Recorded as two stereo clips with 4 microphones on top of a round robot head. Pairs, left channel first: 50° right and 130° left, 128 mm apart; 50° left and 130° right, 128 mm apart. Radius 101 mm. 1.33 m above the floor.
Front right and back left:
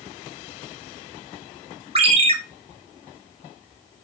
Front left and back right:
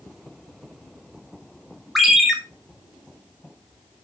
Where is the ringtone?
140° left, 0.5 m.